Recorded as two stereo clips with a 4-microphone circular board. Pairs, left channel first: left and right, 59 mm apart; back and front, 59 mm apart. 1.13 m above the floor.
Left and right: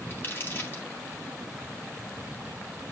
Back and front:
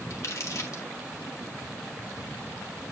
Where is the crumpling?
145° left, 2 m.